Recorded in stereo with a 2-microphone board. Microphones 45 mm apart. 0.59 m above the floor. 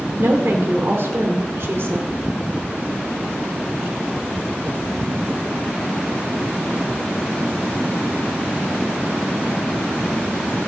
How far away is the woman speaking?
About 1.8 m.